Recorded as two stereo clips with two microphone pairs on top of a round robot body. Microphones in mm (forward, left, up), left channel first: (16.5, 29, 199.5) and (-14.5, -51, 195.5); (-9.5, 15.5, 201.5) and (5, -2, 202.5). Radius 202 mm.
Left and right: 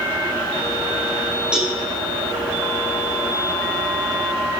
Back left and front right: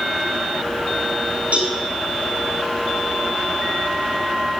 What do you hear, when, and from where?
1.5 s a cowbell: 30° right, 5.5 m